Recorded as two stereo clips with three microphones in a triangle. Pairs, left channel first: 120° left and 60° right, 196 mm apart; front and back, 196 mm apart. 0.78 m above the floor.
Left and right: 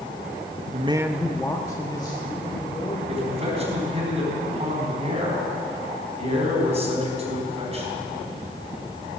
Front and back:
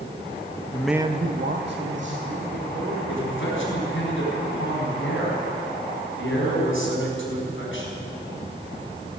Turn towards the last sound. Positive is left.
turn(degrees=-5)